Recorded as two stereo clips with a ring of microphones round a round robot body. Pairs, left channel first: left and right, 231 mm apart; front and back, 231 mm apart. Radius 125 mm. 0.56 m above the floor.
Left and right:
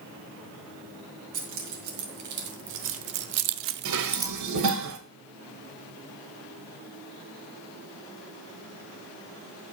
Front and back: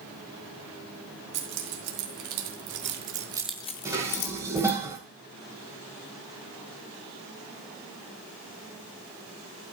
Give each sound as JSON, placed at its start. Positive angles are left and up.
{"t": 1.3, "sound": "keys jangling", "azimuth_deg": -150, "distance_m": 3.0}
{"t": 3.9, "sound": "dishes clattering", "azimuth_deg": -100, "distance_m": 1.8}